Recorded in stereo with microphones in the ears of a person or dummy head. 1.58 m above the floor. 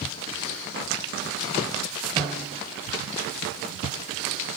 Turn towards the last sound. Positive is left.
turn(degrees=-20)  # may be behind; listen again after turning